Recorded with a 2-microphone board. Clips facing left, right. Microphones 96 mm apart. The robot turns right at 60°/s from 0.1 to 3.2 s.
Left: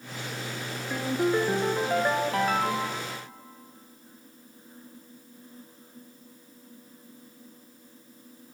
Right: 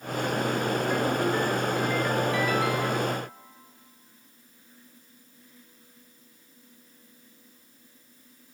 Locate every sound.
0.9 s a ringtone: 10° left, 1.2 m; by 3.1 s 140° left, 1.2 m